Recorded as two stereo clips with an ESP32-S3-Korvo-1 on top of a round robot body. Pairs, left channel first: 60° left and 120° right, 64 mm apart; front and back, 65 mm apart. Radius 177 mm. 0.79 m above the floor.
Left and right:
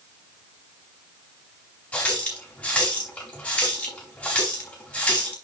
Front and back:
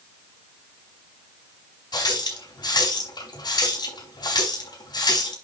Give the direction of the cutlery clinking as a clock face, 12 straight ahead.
I don't hear cutlery clinking.